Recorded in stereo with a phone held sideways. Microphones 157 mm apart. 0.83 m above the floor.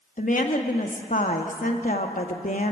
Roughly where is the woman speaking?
Left.